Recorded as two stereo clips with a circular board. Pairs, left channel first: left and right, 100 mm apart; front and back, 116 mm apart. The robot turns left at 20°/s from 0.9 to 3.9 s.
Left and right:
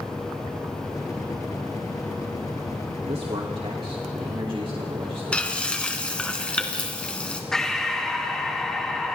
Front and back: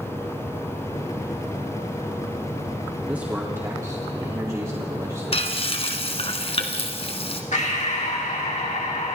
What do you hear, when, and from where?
3.1 s a man speaking: 100° right, 2.5 m; by 6.3 s 120° right, 2.5 m
5.3 s frying: 10° left, 2 m
7.5 s breathing: 5° left, 2.5 m